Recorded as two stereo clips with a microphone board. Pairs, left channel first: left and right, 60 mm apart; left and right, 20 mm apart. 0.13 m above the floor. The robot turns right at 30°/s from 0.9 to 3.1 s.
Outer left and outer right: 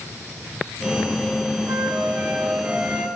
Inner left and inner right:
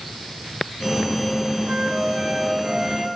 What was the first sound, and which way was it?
A flute, 50° right.